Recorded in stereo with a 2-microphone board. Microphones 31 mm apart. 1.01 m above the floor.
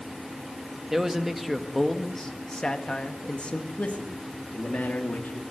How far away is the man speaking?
About 1.8 m.